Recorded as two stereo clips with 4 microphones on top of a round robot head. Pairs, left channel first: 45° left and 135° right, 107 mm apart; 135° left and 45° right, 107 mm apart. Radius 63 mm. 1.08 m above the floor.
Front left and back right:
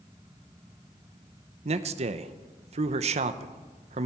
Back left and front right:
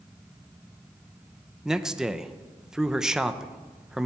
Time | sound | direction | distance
1.6 | a man speaking | 125° right | 0.7 m